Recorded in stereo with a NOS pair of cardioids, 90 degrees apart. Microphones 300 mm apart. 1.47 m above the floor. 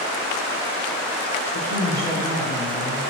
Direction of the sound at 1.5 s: 70° left.